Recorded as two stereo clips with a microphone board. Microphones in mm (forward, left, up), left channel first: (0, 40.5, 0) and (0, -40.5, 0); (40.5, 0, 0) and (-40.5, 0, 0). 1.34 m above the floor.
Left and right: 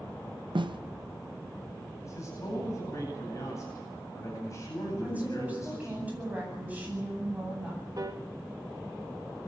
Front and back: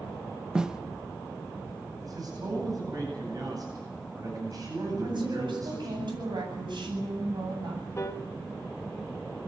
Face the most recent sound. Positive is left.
turn(degrees=-50)